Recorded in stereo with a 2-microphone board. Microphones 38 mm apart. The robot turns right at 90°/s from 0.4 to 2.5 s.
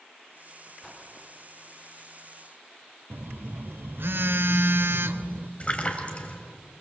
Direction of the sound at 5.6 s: 35° left (ahead or behind).